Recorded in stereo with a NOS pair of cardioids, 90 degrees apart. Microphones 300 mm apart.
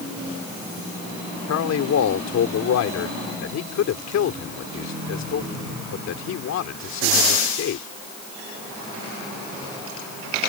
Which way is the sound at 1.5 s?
60° left.